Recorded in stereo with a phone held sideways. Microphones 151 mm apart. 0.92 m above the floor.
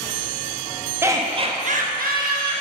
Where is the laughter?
15° right (ahead or behind), 1.0 m; by 2.6 s 70° right (ahead or behind), 1.4 m.